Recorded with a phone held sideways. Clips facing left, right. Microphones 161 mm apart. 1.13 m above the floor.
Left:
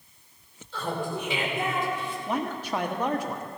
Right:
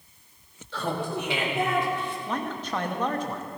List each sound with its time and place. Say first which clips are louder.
0.7 s laughter: right 1 dB; 75° right (ahead or behind), 2.5 m; by 2.2 s 60° right (ahead or behind), 4 m
2.3 s a man speaking: left 4 dB; 10° left (ahead or behind), 1.4 m